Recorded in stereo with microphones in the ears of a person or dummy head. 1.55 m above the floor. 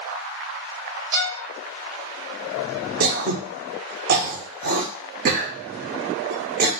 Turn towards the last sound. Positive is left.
turn(degrees=-45)  # may be behind; listen again after turning